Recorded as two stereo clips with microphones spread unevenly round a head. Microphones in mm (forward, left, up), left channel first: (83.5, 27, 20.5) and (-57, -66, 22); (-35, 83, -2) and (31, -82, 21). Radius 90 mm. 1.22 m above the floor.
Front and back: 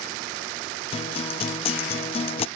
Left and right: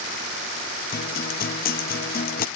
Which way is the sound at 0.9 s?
80° left.